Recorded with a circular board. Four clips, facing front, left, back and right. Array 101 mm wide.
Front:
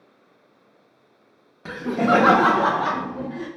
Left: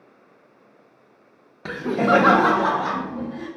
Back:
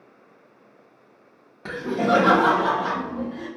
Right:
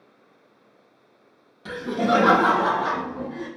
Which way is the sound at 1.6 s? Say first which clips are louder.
Left 3 dB, front 2 dB; 100° left.